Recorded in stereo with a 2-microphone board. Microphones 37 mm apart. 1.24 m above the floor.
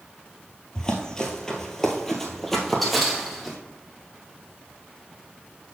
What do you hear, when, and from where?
0.8 s running footsteps: 20° left (ahead or behind), 1.3 m; by 3.6 s centre (ahead or behind), 1.9 m